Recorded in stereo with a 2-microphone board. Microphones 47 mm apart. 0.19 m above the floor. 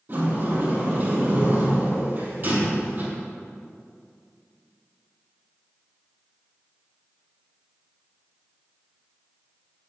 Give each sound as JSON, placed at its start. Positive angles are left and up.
{"t": 0.1, "sound": "a sliding door", "side_deg": -40, "distance_m": 4.5}